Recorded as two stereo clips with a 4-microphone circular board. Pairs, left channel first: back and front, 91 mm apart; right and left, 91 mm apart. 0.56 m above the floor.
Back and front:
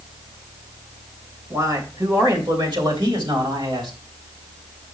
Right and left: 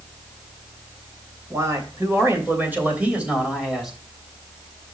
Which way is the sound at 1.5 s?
45° left.